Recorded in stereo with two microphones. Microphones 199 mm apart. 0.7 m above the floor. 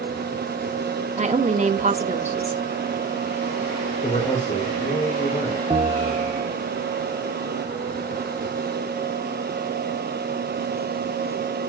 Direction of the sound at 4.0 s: 40° left (ahead or behind).